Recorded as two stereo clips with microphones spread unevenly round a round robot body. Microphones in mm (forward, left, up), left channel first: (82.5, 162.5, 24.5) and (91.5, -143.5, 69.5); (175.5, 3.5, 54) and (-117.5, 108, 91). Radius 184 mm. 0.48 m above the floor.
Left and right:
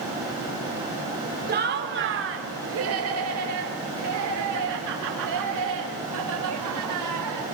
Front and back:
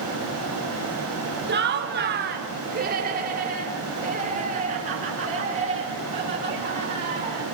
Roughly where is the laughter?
Behind right.